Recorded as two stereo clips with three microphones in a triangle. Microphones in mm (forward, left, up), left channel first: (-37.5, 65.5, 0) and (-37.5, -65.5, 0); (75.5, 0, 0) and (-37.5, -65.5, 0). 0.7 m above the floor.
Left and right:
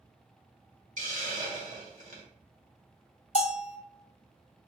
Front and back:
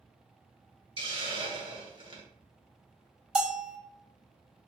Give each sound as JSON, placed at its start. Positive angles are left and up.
{"t": 1.0, "sound": "a hiss", "azimuth_deg": -100, "distance_m": 1.6}
{"t": 3.4, "sound": "a bell", "azimuth_deg": 130, "distance_m": 0.6}